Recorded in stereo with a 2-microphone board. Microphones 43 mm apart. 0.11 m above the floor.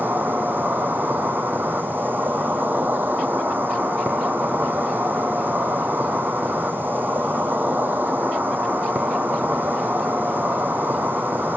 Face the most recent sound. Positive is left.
turn(degrees=-45)  # may be behind; listen again after turning